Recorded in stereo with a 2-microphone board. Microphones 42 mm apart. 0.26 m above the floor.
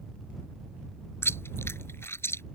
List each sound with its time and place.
1.2 s chewing: 75° left (ahead or behind)